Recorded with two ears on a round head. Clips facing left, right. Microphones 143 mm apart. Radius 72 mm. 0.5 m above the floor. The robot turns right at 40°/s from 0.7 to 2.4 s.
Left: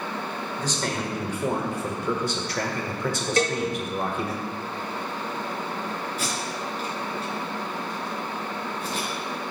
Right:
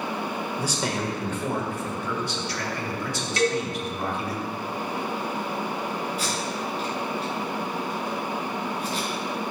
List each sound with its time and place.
0.6 s a man speaking: 10° right, 1.9 m; by 4.4 s 55° left, 1.9 m
3.4 s a cowbell: 35° left (ahead or behind), 1.1 m
6.2 s tape being pulled: 40° left (ahead or behind), 5 m